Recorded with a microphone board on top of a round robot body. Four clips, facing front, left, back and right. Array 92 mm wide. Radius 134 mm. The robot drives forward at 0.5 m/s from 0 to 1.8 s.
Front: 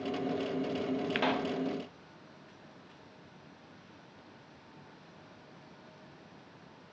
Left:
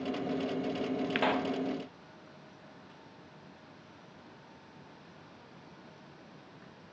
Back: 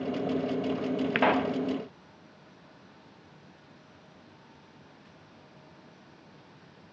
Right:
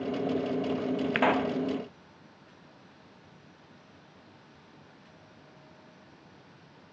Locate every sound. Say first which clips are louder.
1.1 s a pop: right 5 dB, back 8 dB; 140° right, 1.1 m; by 1.6 s 150° right, 1.2 m